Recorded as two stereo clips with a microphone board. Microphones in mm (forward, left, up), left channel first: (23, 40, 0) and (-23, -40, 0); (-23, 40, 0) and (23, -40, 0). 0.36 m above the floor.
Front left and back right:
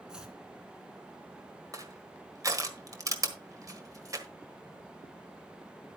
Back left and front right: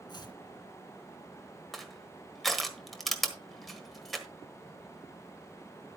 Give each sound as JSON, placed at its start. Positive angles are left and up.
{"t": 0.1, "sound": "chopping", "azimuth_deg": 160, "distance_m": 1.9}
{"t": 1.7, "sound": "crushing", "azimuth_deg": -150, "distance_m": 1.4}